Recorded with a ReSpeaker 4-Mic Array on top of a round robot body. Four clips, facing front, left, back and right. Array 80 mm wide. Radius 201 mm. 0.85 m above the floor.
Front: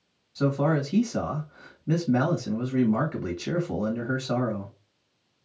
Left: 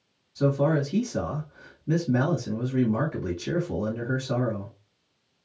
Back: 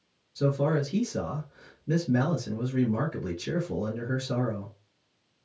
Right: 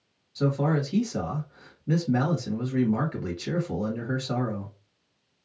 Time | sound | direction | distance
0.3 | a man speaking | 25° right | 1.7 m